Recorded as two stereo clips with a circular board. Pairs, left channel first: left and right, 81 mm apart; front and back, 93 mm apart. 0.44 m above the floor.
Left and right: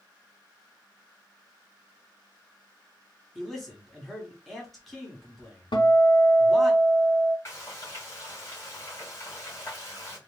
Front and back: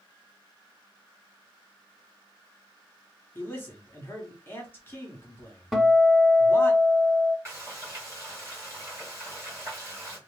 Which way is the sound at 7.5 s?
130° left.